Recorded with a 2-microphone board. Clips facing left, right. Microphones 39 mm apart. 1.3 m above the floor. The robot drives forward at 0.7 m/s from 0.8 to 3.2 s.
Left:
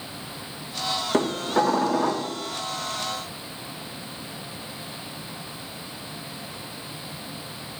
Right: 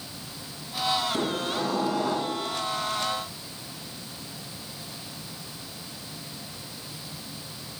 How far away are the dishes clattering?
About 1.9 m.